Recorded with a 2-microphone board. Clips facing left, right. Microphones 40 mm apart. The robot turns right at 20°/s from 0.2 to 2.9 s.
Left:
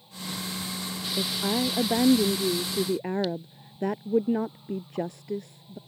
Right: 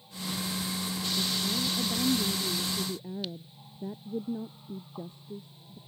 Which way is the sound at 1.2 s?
65° left.